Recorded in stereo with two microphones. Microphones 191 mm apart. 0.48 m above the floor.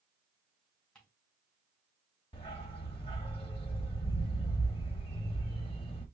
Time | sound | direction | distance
0.9 | ticking | 5° left (ahead or behind) | 2.5 m
2.3 | a dog barking | 30° left (ahead or behind) | 1.0 m